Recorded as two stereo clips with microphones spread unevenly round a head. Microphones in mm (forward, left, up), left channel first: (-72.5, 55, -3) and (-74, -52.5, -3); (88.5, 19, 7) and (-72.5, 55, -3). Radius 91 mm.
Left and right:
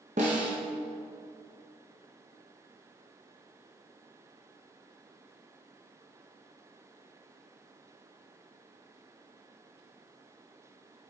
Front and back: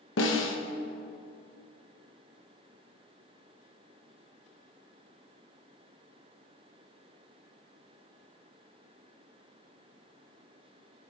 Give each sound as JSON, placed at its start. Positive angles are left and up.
{"t": 0.2, "sound": "a snare drum", "azimuth_deg": -40, "distance_m": 1.6}